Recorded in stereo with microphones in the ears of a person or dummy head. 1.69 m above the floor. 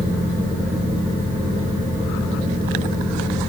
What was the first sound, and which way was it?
A fan, 35° right (ahead or behind).